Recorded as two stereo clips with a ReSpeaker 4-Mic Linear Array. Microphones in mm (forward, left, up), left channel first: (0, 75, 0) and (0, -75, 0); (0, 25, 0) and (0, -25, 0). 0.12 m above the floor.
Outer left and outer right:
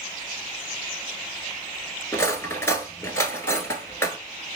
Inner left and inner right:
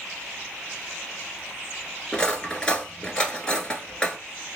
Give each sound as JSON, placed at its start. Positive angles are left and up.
{"t": 2.1, "sound": "cutlery clinking", "side_deg": 20, "distance_m": 0.9}